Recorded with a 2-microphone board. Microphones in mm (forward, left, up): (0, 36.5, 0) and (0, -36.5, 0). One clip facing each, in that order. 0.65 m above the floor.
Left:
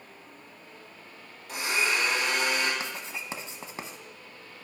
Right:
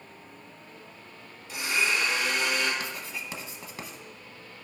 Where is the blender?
80° left, 4.5 m.